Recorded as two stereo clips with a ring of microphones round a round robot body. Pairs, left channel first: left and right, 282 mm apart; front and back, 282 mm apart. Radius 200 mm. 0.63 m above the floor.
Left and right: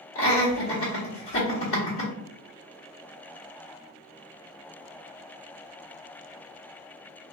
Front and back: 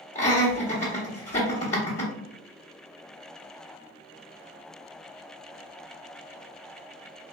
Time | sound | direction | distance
0.1 | laughter | 60° left | 0.9 m